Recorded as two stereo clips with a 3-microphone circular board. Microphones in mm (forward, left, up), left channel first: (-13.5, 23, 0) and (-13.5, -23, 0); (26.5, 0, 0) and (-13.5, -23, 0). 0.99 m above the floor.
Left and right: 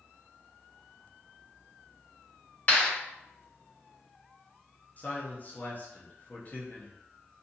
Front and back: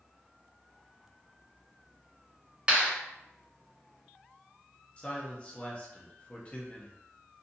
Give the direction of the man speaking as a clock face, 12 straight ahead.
9 o'clock.